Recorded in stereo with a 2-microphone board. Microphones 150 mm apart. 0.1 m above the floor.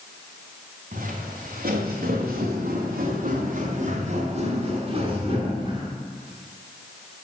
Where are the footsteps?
70° right (ahead or behind), 3 m; by 5.9 s 30° right (ahead or behind), 3.5 m.